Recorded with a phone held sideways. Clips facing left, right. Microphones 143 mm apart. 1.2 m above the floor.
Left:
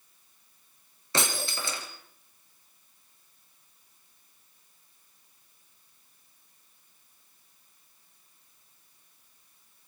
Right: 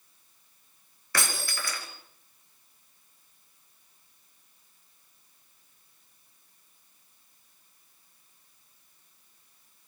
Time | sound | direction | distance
1.1 | breaking glass | 20° left (ahead or behind) | 4 m